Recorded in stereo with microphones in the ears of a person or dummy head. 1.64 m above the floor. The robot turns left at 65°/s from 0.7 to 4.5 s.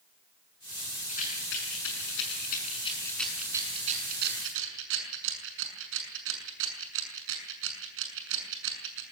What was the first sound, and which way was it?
A rattle, 35° left (ahead or behind).